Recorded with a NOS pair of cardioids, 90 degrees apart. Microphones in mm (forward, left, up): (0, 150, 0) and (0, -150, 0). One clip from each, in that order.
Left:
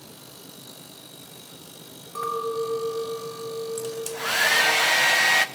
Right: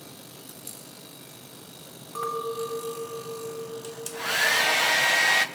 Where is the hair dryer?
15° left, 1.4 m.